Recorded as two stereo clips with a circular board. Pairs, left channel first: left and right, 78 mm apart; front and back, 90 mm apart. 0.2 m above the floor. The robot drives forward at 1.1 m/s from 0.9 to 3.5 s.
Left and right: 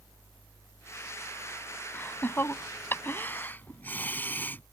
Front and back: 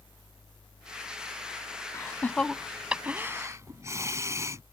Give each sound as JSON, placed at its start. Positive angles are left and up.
{"t": 1.9, "sound": "laughter", "azimuth_deg": 40}